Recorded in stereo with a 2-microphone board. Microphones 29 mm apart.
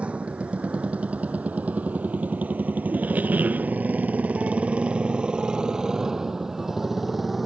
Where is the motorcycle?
45° right (ahead or behind); by 7.5 s 10° right (ahead or behind).